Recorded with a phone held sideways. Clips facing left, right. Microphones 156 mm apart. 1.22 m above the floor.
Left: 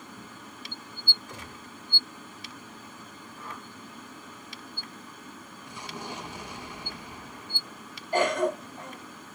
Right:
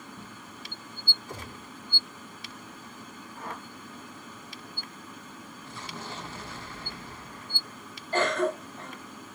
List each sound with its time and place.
1.3 s a gunshot: 35° right (ahead or behind), 3.5 m
3.4 s a whoosh: 65° right (ahead or behind), 2.5 m
5.7 s an explosion: 15° left (ahead or behind), 1.3 m
8.1 s a cough: 15° left (ahead or behind), 1.9 m